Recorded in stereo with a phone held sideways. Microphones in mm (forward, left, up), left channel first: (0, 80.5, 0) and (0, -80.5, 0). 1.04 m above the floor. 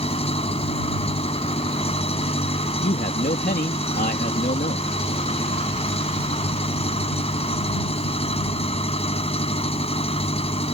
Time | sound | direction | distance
0.0 | an engine running | 40° left (ahead or behind) | ?
2.6 | a man speaking | 70° left (ahead or behind) | ?